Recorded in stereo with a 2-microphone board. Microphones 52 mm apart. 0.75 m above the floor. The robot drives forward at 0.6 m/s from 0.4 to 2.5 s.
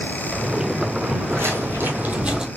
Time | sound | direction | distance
1.0 | footsteps | 60° right (ahead or behind) | 1.6 m